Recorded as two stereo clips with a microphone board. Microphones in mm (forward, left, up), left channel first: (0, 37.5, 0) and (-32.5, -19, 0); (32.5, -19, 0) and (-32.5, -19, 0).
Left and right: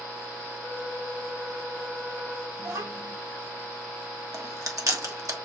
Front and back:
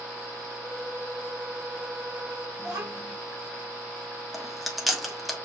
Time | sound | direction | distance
0.6 | a flute | 125° right | 1.9 m
2.6 | a child speaking | 125° right | 2.5 m
4.3 | chewing | 90° right | 1.2 m